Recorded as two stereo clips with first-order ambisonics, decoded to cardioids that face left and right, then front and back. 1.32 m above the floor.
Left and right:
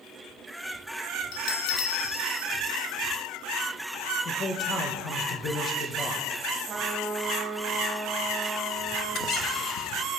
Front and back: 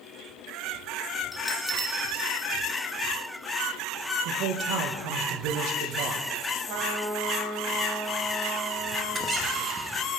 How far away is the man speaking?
About 1.2 m.